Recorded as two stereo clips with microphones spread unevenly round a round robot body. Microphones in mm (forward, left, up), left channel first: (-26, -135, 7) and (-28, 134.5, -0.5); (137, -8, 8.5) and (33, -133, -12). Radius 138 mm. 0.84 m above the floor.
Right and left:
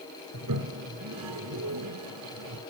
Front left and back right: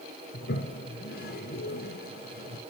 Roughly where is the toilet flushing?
Ahead left.